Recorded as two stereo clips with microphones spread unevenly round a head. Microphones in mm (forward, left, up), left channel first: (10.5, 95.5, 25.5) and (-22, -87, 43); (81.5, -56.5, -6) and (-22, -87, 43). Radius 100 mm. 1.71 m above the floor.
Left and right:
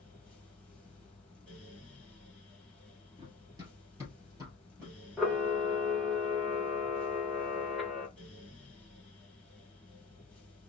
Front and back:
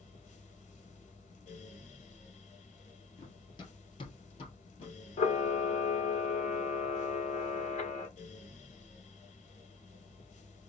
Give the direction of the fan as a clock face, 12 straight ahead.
12 o'clock.